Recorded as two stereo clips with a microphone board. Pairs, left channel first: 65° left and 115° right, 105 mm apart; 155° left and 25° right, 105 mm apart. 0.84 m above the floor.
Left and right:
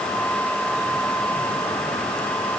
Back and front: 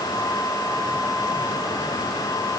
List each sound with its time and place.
Only background noise.